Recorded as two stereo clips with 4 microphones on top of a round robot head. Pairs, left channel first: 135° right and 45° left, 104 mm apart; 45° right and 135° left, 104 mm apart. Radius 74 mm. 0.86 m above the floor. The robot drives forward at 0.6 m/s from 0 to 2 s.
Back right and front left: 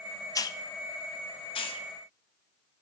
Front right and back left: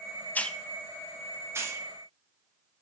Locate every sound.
0.3 s a hiss: 110° right, 0.6 m; by 1.9 s 165° right, 1.2 m